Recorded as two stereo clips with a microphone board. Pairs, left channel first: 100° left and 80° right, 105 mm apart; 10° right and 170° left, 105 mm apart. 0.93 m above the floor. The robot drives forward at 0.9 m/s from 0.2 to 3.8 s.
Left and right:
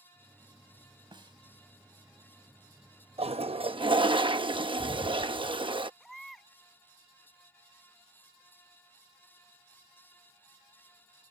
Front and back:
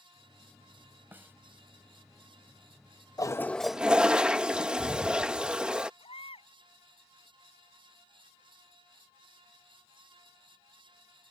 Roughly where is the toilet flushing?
Ahead right.